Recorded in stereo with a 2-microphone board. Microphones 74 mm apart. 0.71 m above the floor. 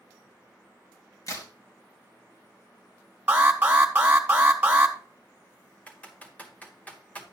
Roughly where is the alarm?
Right.